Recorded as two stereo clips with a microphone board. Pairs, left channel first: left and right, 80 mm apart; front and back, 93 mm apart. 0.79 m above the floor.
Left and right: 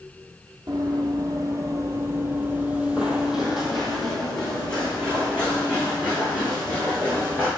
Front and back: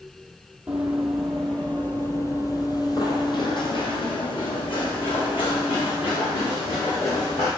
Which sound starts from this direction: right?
Running footsteps, at 0.7 s.